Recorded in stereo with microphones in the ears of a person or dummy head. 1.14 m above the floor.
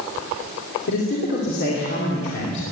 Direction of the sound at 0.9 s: 60° left (ahead or behind).